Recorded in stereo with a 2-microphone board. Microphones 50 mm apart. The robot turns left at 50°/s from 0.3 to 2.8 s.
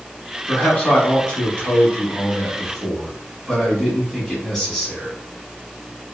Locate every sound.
0.5 s a man speaking: 20° left (ahead or behind), 1.2 m; by 5.1 s 5° left (ahead or behind), 1.2 m